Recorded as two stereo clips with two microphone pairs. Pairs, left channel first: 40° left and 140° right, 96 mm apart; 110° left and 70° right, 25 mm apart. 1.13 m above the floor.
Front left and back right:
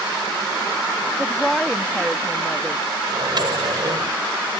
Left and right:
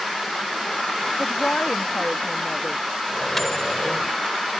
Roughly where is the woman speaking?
Behind left.